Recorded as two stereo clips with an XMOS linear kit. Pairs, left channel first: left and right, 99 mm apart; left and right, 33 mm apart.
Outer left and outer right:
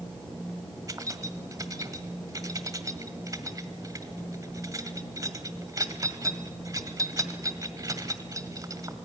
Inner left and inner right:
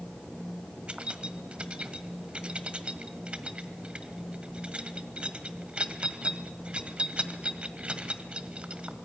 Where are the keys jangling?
35° right (ahead or behind), 1.6 m.